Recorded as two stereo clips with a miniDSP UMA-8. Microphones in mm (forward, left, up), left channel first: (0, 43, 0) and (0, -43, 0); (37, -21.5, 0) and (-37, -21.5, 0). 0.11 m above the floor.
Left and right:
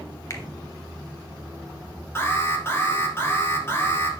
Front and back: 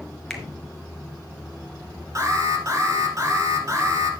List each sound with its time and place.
0.3 s a finger snap: 85° left, 1.6 m
2.1 s an alarm: 145° left, 2 m